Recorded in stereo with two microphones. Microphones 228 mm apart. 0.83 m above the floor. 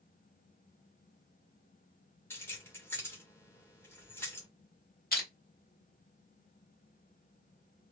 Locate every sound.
2.3 s keys jangling: 10° left (ahead or behind), 1.3 m
5.1 s crushing: 40° left (ahead or behind), 1.3 m